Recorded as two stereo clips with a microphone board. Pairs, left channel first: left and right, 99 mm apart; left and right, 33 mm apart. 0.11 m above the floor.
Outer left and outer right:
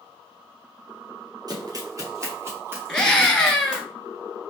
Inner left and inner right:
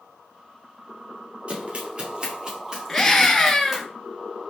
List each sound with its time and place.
1.5 s running footsteps: 45° right (ahead or behind), 2 m; by 3.8 s 10° right (ahead or behind), 3 m
2.9 s a scream: 10° left (ahead or behind), 1.3 m